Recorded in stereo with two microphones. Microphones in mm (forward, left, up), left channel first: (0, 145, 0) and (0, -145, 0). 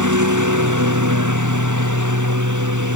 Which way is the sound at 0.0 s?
85° right.